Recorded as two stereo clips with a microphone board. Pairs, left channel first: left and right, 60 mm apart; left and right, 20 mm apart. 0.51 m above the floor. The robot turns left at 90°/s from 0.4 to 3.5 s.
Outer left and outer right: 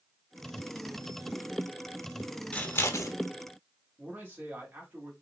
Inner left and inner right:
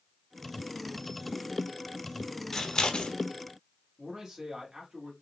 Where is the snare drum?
I don't hear a snare drum.